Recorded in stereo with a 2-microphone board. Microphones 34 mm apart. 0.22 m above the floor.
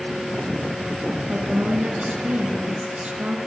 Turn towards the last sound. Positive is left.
turn(degrees=-40)  # may be behind; listen again after turning